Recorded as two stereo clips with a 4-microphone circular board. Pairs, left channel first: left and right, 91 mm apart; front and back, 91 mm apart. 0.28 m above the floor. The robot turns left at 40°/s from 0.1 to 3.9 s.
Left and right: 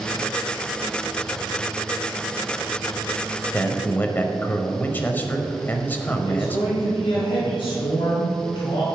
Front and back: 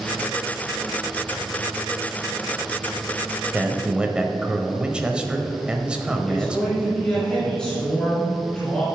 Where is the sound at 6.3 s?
80° left, 2.5 m.